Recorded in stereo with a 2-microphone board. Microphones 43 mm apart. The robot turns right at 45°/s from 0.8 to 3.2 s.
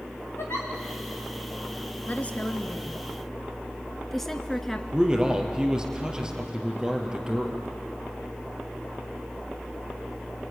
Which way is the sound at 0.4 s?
70° left (ahead or behind).